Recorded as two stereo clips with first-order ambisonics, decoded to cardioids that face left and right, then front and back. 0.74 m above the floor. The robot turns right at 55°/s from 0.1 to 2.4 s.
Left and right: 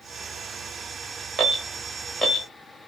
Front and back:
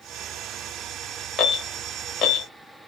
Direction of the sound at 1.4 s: 70° right.